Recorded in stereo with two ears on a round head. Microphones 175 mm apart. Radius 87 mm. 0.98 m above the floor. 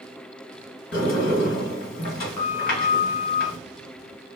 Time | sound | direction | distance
0.9 | a sliding door | 45° left (ahead or behind) | 1.5 m